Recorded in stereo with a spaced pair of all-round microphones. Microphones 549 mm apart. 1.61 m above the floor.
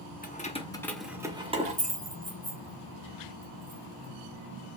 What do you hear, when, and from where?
0.2 s keys jangling: 15° left (ahead or behind), 0.6 m; by 4.1 s 20° right (ahead or behind), 2.5 m